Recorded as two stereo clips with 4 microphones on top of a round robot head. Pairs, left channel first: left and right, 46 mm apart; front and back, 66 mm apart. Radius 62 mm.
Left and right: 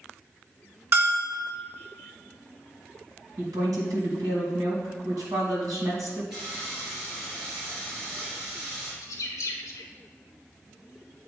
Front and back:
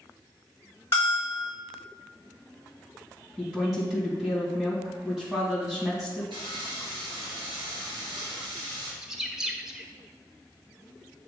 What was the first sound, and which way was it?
A bell, 65° right.